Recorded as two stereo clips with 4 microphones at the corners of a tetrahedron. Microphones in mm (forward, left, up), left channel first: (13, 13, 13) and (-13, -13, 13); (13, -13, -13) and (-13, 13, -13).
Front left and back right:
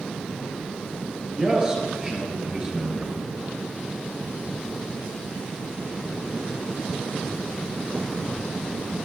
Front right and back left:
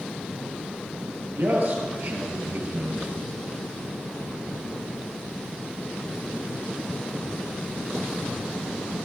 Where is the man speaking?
155° left, 3 m.